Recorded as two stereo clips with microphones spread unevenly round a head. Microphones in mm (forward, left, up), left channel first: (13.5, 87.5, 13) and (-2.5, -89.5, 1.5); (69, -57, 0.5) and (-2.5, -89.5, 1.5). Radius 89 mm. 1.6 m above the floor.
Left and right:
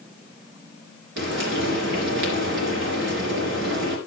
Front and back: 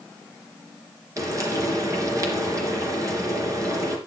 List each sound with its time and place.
1.2 s frying: 115° right, 3.5 m